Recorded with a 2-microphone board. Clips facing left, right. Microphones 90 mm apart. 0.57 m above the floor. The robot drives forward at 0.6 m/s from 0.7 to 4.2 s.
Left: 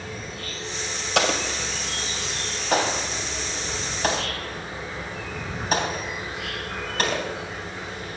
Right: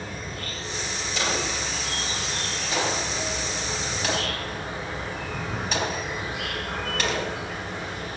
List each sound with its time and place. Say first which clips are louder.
0.0 s an insect: even; 50° right (ahead or behind), 6.5 m; by 8.2 s 65° right (ahead or behind), 5.5 m
1.1 s an explosion: left 5 dB; 70° left (ahead or behind), 2 m; by 7.2 s 40° left (ahead or behind), 3 m